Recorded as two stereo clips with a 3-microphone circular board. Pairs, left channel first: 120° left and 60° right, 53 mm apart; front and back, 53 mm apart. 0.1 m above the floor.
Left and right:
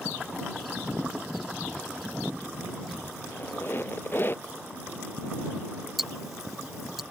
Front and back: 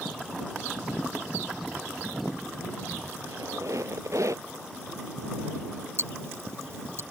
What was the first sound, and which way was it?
A squeak, 165° left.